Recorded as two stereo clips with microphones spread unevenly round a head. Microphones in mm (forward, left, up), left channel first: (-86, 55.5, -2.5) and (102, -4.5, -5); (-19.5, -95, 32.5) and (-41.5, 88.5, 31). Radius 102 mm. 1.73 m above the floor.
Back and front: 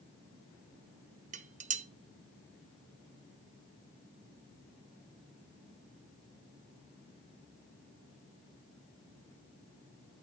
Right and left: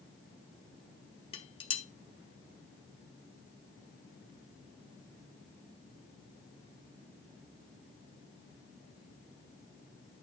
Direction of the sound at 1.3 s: 35° right.